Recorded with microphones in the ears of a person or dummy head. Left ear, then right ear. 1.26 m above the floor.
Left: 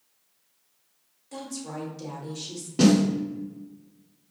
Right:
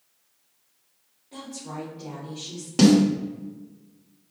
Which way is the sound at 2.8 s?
45° right (ahead or behind).